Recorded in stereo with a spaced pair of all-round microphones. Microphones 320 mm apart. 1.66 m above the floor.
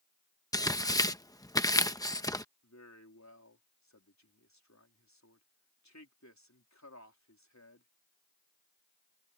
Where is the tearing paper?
10° left (ahead or behind).